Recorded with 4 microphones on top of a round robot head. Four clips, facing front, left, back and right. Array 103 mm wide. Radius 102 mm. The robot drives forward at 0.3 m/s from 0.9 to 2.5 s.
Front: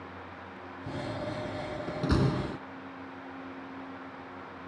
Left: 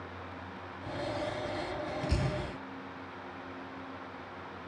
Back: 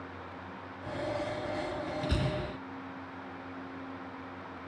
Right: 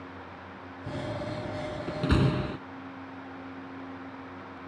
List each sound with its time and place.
0.9 s a door slam: 50° right; by 2.6 s 55° right